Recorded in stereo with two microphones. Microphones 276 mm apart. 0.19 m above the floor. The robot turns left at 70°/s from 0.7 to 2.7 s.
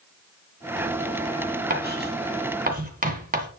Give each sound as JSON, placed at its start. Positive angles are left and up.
{"t": 1.7, "sound": "writing", "side_deg": -30, "distance_m": 2.0}